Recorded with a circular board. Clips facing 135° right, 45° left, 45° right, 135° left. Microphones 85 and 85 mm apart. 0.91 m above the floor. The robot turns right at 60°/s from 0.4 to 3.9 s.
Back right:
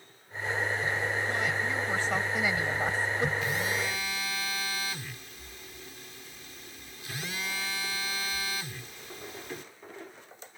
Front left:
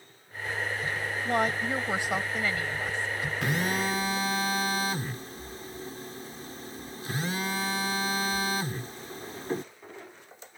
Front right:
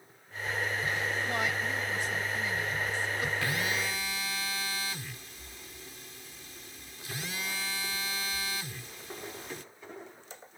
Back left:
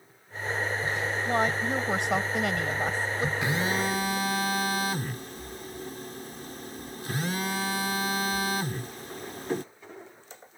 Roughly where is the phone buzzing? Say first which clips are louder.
Front left 2 dB, back left 4 dB; ahead left.